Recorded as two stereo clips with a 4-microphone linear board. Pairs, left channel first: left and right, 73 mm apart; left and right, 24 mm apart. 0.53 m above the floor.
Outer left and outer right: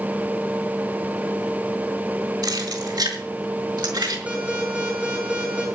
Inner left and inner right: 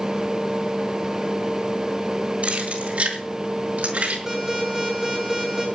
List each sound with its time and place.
2.4 s keys jangling: 65° right (ahead or behind), 4.5 m; by 4.2 s 85° right, 5.5 m
4.3 s an alarm: 20° right (ahead or behind), 7.5 m